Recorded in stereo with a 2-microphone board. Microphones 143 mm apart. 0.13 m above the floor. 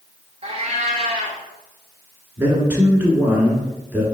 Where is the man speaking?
15° right (ahead or behind), 1.3 m.